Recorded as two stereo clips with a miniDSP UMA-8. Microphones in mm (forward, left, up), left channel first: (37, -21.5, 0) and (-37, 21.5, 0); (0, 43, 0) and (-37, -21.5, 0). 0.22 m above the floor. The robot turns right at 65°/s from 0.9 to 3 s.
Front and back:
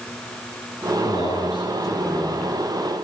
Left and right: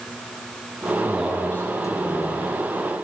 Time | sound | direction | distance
1.0 | a man speaking | 40° right | 6 m